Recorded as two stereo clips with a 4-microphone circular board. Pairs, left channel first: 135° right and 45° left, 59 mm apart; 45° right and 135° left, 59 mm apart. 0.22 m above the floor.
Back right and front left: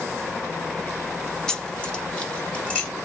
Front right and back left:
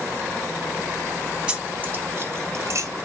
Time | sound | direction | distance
1.5 | keys jangling | 175° left | 0.8 m